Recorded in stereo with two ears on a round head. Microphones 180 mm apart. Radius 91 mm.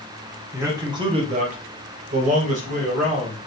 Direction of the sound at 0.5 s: 10° right (ahead or behind).